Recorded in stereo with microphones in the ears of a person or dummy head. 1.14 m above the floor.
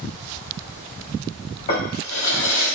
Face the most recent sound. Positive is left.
turn(degrees=50)  # may be behind; listen again after turning